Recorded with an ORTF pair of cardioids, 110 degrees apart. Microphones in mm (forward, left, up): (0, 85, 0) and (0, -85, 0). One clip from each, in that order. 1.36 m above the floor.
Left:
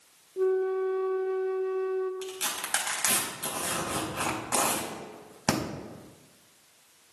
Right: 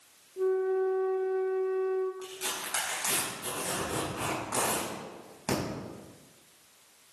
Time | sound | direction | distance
0.4 | a flute | 35° left | 1.1 m
2.2 | tearing paper | 50° left | 4.5 m